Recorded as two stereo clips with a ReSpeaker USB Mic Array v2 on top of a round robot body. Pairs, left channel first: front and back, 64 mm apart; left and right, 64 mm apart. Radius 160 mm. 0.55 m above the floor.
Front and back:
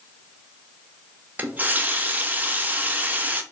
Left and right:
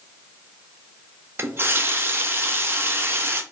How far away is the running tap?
About 0.6 m.